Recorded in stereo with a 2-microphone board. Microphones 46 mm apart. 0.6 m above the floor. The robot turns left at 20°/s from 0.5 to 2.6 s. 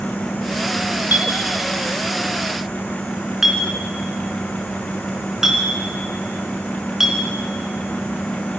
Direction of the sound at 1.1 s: 40° right (ahead or behind).